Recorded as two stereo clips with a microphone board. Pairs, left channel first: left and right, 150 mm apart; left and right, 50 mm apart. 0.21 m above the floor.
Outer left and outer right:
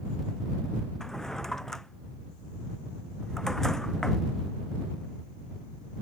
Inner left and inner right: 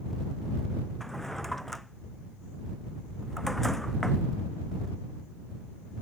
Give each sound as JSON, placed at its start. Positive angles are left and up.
{"t": 1.0, "sound": "a drawer", "side_deg": 5}